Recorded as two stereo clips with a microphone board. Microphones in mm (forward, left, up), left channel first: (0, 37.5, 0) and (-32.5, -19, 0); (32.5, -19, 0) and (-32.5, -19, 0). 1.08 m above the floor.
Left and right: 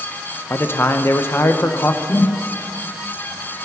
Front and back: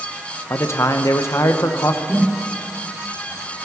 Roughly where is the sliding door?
No sliding door in this recording.